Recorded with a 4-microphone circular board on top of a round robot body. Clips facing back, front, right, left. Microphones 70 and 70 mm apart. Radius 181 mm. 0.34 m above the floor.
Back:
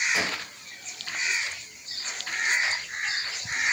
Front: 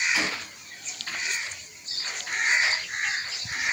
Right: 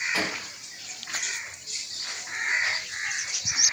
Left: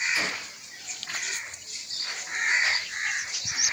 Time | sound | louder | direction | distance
0.1 | a gunshot | even, right 1 dB | 130° right | 2 m